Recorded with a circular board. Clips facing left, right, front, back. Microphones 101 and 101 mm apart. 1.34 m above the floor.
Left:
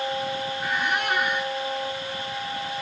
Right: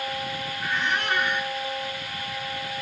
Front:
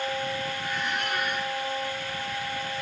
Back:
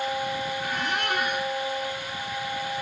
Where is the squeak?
165° left, 3 m.